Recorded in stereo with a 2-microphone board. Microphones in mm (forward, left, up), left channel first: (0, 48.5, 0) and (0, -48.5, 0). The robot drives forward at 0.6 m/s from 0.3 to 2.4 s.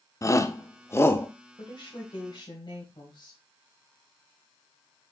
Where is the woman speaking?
60° left (ahead or behind), 2.5 m; by 3.4 s 50° left (ahead or behind), 2.5 m.